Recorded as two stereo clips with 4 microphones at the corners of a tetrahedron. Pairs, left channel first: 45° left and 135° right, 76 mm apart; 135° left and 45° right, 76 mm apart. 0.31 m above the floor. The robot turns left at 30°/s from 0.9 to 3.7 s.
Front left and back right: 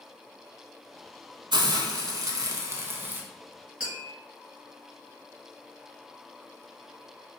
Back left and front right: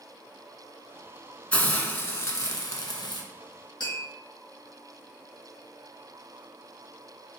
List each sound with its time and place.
1.5 s a hiss: 150° right, 0.7 m; by 3.2 s 160° left, 0.7 m
3.8 s tapping: 150° left, 1.8 m